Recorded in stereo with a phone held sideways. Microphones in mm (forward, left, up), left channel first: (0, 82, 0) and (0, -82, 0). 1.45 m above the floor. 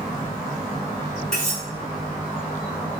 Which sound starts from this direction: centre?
Cutlery clinking, at 1.3 s.